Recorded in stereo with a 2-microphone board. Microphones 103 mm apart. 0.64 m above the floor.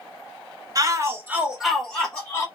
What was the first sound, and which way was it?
A shout, 35° right (ahead or behind).